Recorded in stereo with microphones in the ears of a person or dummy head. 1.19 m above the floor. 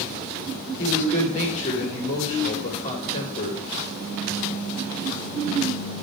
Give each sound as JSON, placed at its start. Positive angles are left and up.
{"t": 0.8, "sound": "a man speaking", "side_deg": 40, "distance_m": 2.5}